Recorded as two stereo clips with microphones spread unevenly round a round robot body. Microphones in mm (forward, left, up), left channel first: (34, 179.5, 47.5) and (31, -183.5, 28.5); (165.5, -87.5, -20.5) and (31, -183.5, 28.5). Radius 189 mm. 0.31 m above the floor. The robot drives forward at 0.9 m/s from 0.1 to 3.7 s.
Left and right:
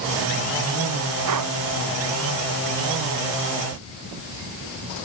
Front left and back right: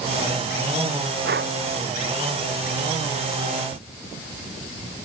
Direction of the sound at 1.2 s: 135° right.